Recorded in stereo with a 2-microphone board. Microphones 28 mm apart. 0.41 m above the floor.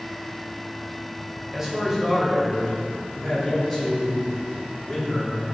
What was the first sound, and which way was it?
A man speaking, 15° right (ahead or behind).